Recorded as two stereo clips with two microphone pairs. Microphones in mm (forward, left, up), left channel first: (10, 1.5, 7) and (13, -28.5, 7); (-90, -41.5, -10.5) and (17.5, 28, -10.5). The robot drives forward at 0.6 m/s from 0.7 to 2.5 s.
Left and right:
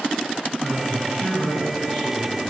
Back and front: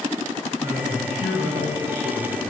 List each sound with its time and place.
0.6 s a man speaking: 65° left, 3.5 m; by 2.4 s 85° left, 3 m